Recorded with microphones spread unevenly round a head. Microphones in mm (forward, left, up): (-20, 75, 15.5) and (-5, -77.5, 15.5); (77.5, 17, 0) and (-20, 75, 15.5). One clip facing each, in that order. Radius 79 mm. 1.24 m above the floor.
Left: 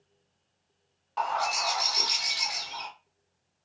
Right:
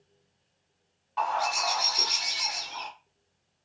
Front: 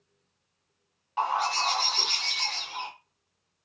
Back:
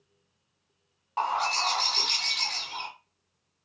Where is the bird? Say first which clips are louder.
Right 1 dB, front 1 dB; 125° left, 1.4 m.